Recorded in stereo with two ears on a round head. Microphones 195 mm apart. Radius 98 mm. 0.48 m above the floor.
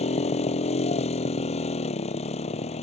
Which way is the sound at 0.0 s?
30° left (ahead or behind).